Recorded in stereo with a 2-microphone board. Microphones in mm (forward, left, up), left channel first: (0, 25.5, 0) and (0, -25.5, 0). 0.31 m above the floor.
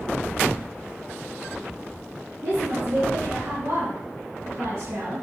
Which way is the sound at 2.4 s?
55° right (ahead or behind).